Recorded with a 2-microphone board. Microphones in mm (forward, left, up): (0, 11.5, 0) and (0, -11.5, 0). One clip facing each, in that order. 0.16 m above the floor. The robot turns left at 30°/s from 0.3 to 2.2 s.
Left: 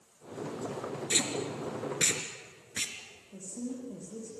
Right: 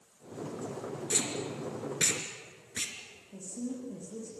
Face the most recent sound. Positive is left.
turn(degrees=5)  # may be behind; listen again after turning